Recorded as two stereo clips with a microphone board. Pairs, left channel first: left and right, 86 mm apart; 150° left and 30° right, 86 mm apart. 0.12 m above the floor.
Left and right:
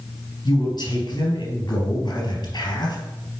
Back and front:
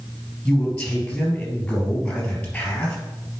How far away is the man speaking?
About 3 m.